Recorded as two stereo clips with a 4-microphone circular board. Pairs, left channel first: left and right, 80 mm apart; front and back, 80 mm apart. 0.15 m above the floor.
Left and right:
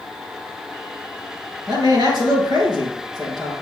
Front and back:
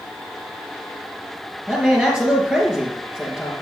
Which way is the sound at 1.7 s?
100° right.